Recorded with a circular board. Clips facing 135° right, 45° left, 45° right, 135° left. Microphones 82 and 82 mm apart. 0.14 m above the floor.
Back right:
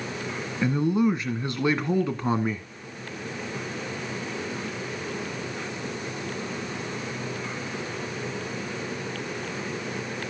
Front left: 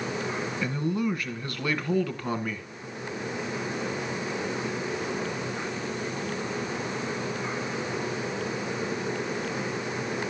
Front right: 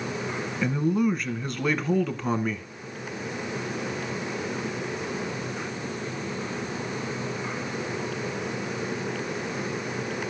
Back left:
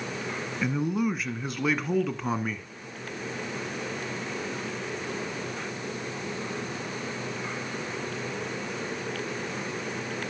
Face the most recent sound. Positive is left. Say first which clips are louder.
# back right 7 dB, front right 3 dB
turn(degrees=-145)